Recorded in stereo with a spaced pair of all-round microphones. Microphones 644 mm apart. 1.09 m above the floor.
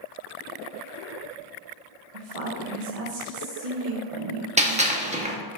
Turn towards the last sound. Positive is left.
turn(degrees=-10)  # may be behind; listen again after turning